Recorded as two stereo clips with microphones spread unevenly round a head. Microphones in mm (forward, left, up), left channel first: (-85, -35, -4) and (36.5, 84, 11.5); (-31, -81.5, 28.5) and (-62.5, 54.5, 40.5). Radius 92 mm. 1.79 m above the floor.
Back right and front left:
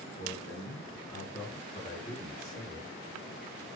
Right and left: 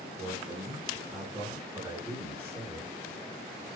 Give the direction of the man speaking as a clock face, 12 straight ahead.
6 o'clock.